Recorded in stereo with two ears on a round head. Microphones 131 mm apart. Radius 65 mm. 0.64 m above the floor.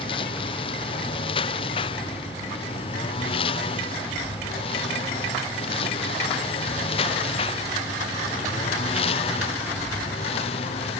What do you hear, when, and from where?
0.0 s a lawn mower: 35° left (ahead or behind); by 11.0 s 40° left (ahead or behind)